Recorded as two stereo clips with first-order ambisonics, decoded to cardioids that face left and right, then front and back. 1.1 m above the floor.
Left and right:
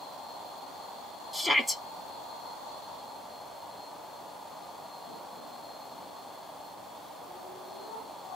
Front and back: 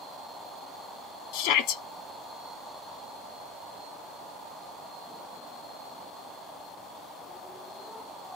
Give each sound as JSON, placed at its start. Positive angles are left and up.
{"t": 1.3, "sound": "a shout", "azimuth_deg": -5, "distance_m": 0.9}